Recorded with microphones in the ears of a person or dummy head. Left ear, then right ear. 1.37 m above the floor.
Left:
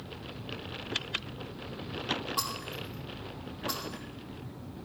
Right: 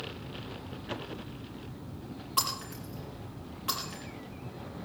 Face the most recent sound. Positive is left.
turn(degrees=-25)  # may be behind; listen again after turning